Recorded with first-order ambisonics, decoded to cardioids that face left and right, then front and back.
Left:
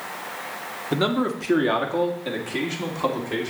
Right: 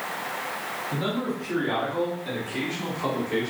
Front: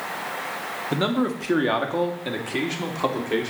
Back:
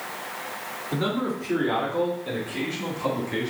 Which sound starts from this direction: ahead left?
A man speaking, at 0.9 s.